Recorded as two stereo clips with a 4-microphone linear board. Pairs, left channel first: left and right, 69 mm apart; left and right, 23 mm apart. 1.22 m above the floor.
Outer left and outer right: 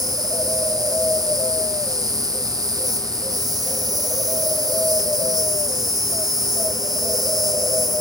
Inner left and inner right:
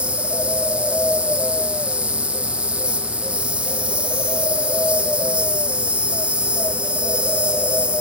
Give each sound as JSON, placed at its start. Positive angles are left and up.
{"t": 0.0, "sound": "an insect", "side_deg": -65, "distance_m": 1.5}